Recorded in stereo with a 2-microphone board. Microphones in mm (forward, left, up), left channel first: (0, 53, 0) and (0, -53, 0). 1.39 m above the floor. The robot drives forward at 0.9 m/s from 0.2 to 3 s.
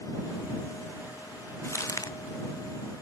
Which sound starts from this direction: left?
Crumpling, at 1.6 s.